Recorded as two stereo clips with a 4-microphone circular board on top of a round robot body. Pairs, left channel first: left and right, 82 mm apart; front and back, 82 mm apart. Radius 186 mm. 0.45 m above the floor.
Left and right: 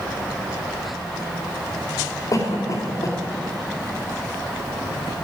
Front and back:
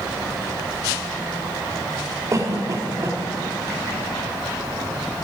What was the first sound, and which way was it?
A cough, 130° left.